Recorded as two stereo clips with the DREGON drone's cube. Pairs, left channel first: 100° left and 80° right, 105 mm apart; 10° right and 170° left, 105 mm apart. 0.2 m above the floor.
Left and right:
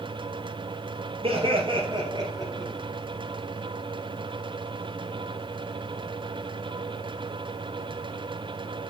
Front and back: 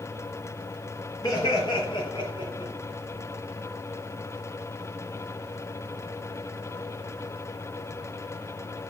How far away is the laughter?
About 3 m.